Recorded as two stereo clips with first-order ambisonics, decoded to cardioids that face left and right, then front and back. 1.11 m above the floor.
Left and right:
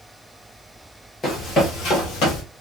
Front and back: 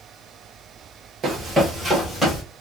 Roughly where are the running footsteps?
Behind left.